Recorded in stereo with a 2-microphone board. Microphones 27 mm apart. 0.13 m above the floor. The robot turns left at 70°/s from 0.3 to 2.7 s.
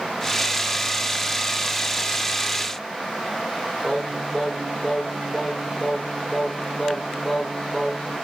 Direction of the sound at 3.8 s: 15° left (ahead or behind).